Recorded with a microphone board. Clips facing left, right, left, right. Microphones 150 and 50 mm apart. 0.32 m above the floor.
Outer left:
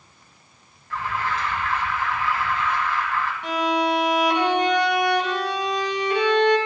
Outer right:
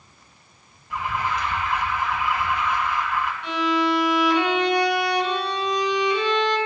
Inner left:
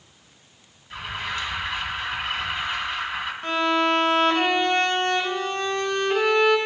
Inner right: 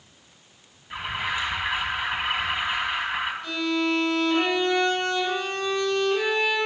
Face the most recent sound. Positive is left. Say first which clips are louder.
# even, inner left 7 dB
turn(degrees=55)  # may be behind; listen again after turning